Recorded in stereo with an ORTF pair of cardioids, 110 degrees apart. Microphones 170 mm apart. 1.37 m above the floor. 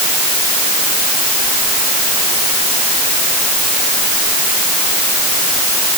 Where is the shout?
No shout in this recording.